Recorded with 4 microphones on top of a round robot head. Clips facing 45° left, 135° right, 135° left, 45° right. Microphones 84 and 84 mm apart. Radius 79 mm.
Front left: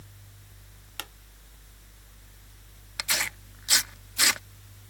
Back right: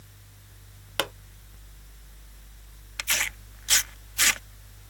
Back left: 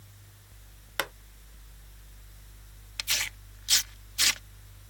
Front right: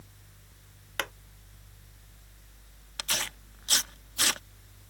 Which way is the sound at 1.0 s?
145° right.